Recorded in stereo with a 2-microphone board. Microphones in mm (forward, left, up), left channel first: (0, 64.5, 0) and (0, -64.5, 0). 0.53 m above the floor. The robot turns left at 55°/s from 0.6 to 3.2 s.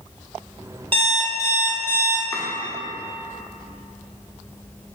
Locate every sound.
0.9 s an alarm clock: 40° right, 0.7 m; by 2.2 s 110° right, 0.7 m
2.3 s chopping: 20° left (ahead or behind), 0.8 m; by 2.4 s 15° left (ahead or behind), 0.8 m